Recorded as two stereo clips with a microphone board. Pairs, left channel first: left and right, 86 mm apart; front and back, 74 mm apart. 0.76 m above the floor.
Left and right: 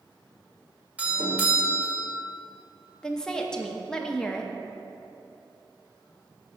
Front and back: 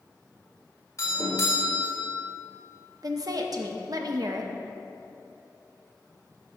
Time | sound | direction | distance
1.0 | a doorbell | 20° right | 1.6 m
3.0 | a woman speaking | 170° left | 0.7 m